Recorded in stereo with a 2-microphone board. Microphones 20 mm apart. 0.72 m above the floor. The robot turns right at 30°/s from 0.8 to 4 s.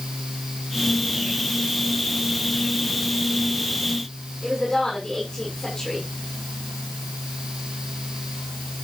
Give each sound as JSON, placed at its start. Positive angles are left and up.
{"t": 4.4, "sound": "a woman speaking", "side_deg": 20, "distance_m": 7.0}